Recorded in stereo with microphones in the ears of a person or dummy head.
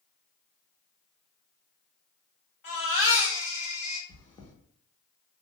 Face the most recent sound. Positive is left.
turn(degrees=30)  # may be behind; listen again after turning